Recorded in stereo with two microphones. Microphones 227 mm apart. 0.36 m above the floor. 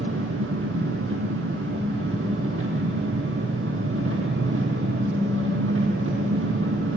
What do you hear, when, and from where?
0.0 s an engine running: 80° right, 3 m